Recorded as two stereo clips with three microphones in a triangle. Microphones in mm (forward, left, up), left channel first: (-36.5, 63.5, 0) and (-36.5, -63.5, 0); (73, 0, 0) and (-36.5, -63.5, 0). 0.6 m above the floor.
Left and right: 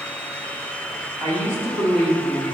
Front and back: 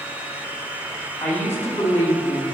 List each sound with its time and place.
1.2 s a woman speaking: 35° right, 1.6 m; by 2.5 s 15° left, 1.3 m